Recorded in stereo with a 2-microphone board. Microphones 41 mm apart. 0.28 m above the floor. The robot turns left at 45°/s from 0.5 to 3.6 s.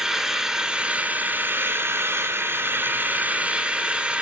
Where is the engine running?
10° right, 1.7 m; by 4.2 s 150° right, 1.7 m.